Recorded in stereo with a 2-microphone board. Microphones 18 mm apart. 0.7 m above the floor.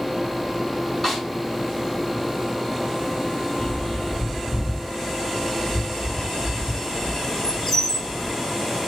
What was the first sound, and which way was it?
A snare drum, 5° left (ahead or behind).